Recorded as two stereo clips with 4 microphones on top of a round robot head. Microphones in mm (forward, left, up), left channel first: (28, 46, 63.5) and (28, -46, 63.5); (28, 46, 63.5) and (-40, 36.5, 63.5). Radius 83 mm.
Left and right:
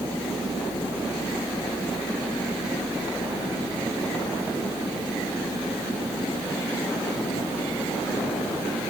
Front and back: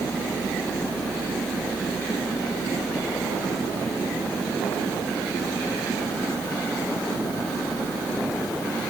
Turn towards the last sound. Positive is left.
No sound to turn to.